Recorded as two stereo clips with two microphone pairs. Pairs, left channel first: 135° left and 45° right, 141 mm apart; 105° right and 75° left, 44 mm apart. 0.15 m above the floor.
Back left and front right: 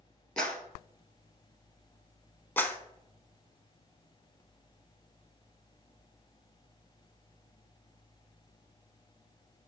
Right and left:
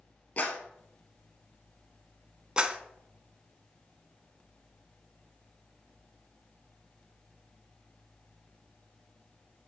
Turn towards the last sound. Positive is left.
turn(degrees=85)